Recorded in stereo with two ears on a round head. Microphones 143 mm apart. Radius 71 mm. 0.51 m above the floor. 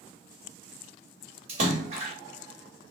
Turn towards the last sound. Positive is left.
turn(degrees=-40)  # may be behind; listen again after turning